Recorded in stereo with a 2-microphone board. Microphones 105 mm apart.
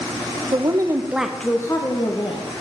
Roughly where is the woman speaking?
Right.